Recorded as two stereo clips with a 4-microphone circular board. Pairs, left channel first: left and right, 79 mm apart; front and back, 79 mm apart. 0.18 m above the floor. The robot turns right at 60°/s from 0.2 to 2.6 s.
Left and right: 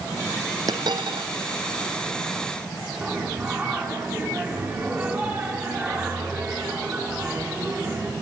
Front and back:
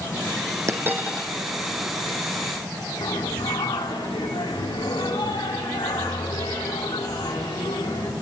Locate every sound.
0.7 s a dropped coin: 130° right, 3 m; by 1.3 s 95° right, 3 m
3.0 s singing: 25° right, 6 m